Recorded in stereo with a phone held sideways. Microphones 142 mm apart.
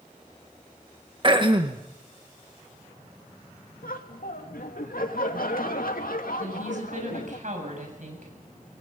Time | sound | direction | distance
1.2 | throat clearing | 35° right (ahead or behind) | 1.7 m
3.8 | laughter | 85° left | 2.5 m
6.4 | a woman speaking | 60° right (ahead or behind) | 7 m